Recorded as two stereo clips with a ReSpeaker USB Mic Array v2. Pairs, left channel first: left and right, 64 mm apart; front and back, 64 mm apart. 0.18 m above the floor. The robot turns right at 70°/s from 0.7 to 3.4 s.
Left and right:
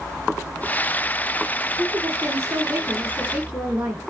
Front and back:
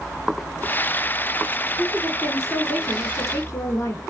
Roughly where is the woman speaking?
Behind right.